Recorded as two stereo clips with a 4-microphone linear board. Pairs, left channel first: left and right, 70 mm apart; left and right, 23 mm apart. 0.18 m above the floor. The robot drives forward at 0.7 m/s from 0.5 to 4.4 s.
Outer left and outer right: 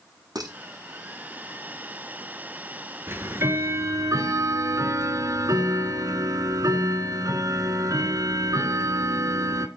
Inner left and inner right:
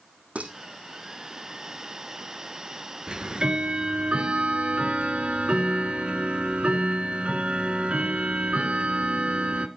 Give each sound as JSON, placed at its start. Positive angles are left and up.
{"t": 0.3, "sound": "dishes clattering", "side_deg": -65, "distance_m": 4.5}
{"t": 3.1, "sound": "ticking", "side_deg": -35, "distance_m": 1.5}